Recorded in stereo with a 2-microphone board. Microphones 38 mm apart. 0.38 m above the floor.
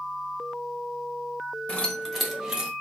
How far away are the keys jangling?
About 1.1 m.